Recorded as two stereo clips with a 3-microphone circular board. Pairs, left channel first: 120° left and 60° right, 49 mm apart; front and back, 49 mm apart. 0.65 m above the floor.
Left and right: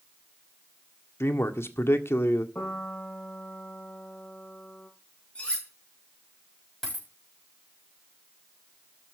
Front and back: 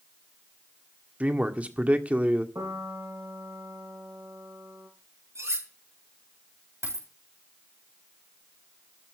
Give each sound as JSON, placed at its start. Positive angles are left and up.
{"t": 1.2, "sound": "a man speaking", "azimuth_deg": 125, "distance_m": 1.6}
{"t": 2.5, "sound": "a piano", "azimuth_deg": 175, "distance_m": 6.5}
{"t": 5.3, "sound": "cutlery clinking", "azimuth_deg": -175, "distance_m": 6.0}
{"t": 6.8, "sound": "a dropped coin", "azimuth_deg": -160, "distance_m": 8.0}